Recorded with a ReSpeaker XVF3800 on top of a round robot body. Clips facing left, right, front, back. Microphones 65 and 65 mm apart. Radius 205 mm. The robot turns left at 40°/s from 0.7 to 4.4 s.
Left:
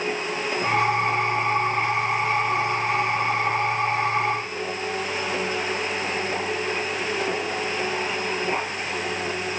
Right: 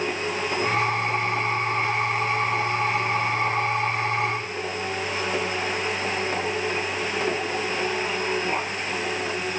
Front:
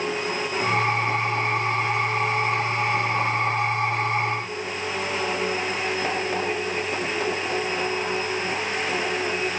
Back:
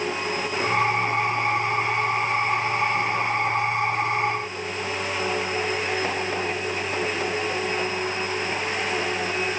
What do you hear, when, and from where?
Only background noise.